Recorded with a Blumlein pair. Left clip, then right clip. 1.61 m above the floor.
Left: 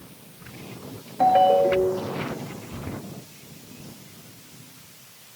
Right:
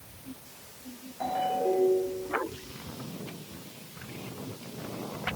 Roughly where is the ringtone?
Ahead left.